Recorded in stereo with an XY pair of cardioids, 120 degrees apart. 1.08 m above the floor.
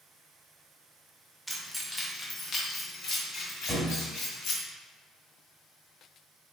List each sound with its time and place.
1.5 s keys jangling: 5° right, 0.6 m; by 4.6 s 70° left, 1.6 m
3.7 s a thud: 15° left, 1.4 m